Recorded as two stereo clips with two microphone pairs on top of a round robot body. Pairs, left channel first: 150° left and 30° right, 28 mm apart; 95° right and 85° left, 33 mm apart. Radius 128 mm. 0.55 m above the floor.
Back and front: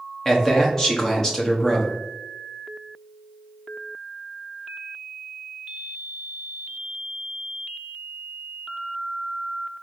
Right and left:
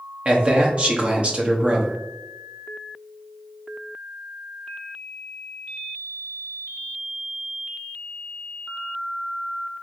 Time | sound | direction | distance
0.2 | a man speaking | 60° left | 1.0 m